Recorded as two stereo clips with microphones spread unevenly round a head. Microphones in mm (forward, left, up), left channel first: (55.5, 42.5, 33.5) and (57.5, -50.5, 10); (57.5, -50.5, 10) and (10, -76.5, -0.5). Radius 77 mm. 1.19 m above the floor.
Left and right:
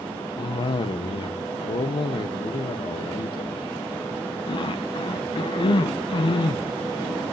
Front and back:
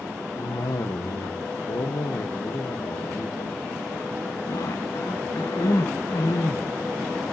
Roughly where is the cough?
Ahead left.